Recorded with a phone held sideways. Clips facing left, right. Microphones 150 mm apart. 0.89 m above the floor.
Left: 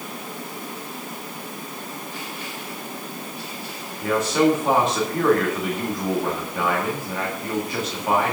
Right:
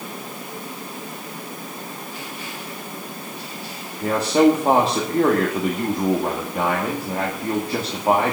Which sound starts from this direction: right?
A man speaking, at 4.0 s.